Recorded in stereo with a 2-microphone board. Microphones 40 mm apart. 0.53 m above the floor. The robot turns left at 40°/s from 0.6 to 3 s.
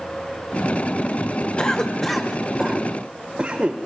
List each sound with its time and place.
1.6 s a cough: 30° left (ahead or behind), 1.5 m; by 3.8 s 20° right (ahead or behind), 1.5 m